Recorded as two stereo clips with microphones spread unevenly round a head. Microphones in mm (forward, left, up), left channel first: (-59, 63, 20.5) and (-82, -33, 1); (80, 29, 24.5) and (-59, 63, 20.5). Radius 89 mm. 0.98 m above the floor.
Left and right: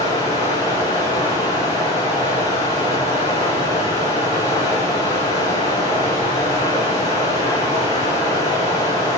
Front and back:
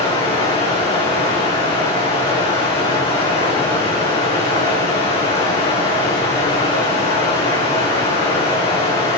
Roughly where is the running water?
Ahead left.